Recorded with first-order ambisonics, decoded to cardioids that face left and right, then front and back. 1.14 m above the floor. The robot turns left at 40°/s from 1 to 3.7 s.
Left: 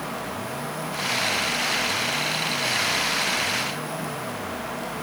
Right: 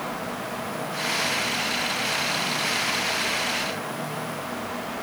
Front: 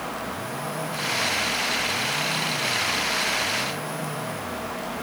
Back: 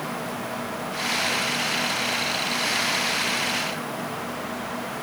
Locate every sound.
Only background noise.